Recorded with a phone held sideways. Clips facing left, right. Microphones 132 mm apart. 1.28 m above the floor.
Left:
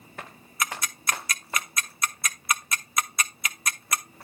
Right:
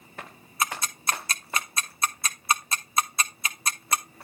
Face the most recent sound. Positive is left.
turn(degrees=-30)  # may be behind; listen again after turning